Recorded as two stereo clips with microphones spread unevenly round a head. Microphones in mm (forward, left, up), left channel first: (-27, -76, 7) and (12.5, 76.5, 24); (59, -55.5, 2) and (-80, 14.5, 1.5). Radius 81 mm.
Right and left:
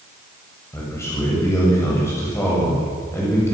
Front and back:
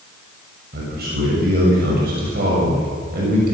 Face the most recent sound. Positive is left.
turn(degrees=180)